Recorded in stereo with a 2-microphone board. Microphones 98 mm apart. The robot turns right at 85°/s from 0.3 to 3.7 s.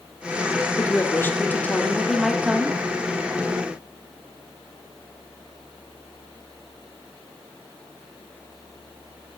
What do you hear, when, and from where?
0.8 s a woman speaking: 15° left (ahead or behind), 1.2 m; by 2.8 s 15° right (ahead or behind), 1.2 m